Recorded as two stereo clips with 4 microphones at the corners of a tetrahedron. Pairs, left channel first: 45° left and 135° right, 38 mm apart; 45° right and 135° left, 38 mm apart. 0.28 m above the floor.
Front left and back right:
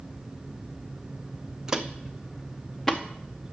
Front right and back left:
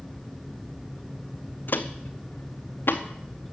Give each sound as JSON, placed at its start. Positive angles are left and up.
{"t": 1.7, "sound": "footsteps", "azimuth_deg": -65, "distance_m": 0.7}